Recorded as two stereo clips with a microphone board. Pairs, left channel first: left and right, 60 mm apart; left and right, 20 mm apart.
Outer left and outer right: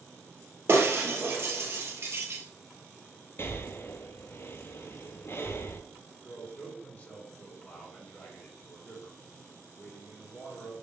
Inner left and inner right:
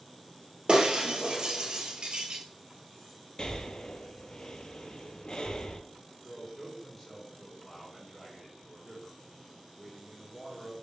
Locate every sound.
0.7 s breaking glass: 50° right (ahead or behind), 1.3 m
3.4 s breathing: 45° left (ahead or behind), 0.6 m
6.2 s a man speaking: 30° left (ahead or behind), 3 m